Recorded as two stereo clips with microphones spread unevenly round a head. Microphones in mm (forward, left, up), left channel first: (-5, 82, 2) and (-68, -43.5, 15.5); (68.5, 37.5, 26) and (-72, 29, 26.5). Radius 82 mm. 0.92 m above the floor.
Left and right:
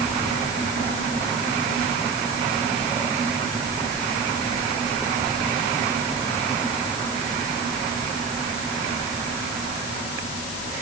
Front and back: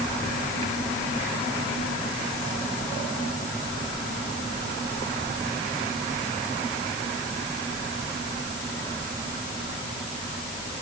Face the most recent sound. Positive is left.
No sound to turn to.